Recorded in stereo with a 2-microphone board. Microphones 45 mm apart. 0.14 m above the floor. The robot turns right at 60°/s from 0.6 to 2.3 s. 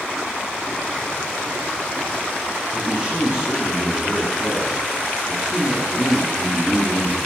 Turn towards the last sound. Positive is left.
turn(degrees=-20)  # may be behind; listen again after turning